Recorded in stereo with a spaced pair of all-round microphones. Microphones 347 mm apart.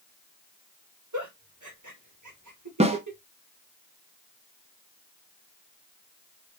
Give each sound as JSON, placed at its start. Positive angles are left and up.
{"t": 1.1, "sound": "a giggle", "side_deg": -55, "distance_m": 1.5}
{"t": 2.8, "sound": "a snare drum", "side_deg": -20, "distance_m": 0.8}